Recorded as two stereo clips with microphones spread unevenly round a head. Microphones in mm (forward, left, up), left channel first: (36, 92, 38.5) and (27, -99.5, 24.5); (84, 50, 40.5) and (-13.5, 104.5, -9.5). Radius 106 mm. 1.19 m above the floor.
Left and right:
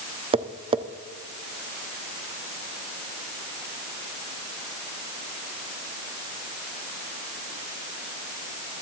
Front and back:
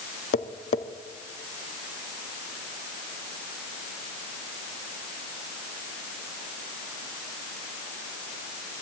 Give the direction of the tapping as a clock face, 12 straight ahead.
1 o'clock.